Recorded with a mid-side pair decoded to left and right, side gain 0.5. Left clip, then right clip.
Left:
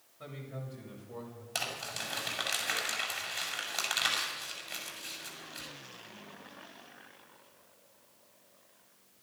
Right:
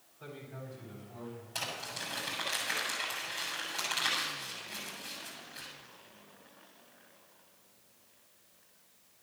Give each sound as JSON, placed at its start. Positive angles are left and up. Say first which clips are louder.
{"t": 0.2, "sound": "a man speaking", "louder": "left 1 dB", "azimuth_deg": 60, "distance_m": 8.0}
{"t": 1.6, "sound": "crumpling", "louder": "left 2 dB", "azimuth_deg": 55, "distance_m": 7.5}